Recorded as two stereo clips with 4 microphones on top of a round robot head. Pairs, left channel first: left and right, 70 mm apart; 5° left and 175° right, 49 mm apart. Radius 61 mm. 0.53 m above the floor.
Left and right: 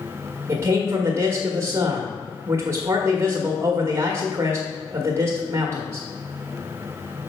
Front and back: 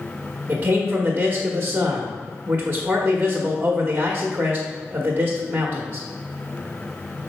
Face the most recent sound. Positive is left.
turn(degrees=-130)